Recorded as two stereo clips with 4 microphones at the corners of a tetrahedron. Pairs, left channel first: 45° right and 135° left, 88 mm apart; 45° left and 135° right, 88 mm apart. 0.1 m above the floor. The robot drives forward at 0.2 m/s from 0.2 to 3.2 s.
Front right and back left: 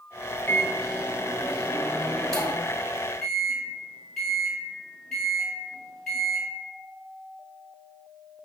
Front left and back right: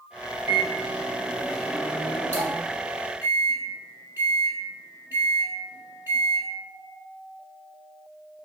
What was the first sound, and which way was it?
A microwave, 85° right.